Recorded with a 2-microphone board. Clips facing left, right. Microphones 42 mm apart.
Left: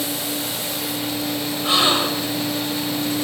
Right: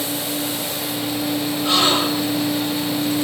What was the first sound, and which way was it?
A gasp, 15° left (ahead or behind).